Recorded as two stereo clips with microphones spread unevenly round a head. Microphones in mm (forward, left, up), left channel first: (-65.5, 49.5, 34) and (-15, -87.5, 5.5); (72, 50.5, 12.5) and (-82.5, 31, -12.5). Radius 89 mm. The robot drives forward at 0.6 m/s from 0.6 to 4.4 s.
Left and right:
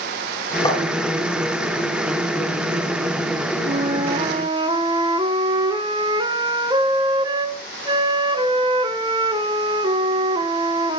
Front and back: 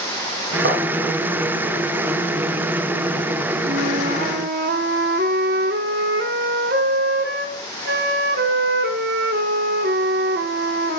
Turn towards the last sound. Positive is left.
turn(degrees=-130)